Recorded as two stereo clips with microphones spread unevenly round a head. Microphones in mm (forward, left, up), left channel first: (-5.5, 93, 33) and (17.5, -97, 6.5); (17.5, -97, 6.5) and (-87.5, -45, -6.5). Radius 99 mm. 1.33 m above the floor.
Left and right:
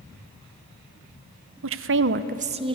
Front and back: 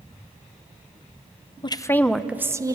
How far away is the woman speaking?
About 1.2 m.